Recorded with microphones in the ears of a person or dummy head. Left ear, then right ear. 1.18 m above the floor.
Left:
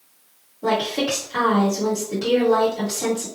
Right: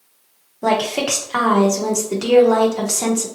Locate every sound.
0.6 s a woman speaking: 50° right (ahead or behind), 0.8 m